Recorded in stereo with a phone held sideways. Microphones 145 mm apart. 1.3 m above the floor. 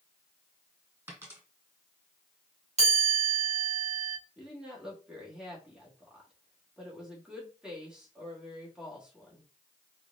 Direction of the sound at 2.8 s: 50° right (ahead or behind).